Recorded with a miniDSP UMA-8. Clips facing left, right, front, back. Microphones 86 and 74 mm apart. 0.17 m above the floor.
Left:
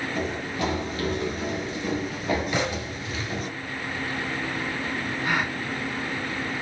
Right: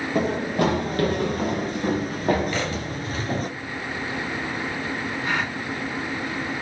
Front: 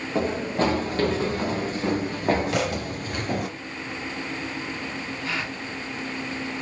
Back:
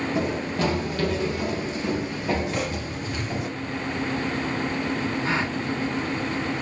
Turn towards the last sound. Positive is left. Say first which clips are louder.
# left 1 dB, back 3 dB
turn(degrees=170)